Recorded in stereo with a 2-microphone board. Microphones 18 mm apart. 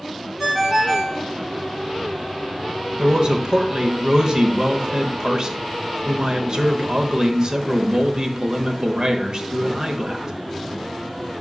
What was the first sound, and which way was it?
A ringtone, centre (ahead or behind).